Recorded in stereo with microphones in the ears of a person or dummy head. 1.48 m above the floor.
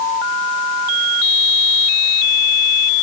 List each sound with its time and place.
Only background noise.